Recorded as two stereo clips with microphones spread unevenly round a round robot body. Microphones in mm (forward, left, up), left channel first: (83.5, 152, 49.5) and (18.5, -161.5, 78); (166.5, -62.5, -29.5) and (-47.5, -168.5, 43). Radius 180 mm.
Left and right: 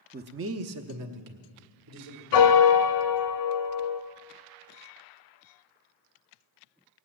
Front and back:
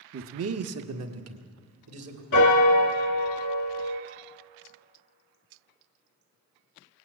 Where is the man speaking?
150° right, 0.7 m; by 2.2 s 130° right, 2 m.